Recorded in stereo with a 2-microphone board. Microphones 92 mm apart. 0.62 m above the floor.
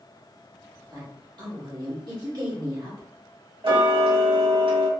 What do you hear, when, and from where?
0.9 s a woman speaking: 55° right (ahead or behind), 1.4 m
3.6 s ticking: 70° right (ahead or behind), 0.8 m